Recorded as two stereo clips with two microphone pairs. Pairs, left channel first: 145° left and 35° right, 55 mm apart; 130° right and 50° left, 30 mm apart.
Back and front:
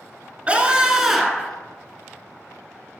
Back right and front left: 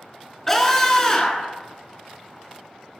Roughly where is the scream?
Ahead right.